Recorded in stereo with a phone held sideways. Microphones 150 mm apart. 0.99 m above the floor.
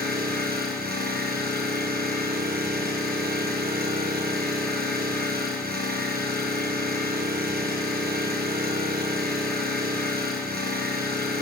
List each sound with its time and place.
0.0 s an engine running: 85° right, 7.5 m